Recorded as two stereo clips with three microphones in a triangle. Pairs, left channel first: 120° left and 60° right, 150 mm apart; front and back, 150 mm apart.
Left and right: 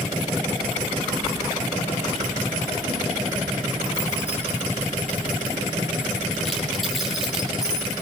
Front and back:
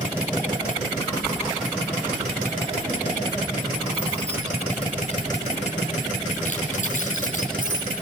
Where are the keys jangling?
100° left, 3.5 m; by 8.0 s 25° left, 7.5 m.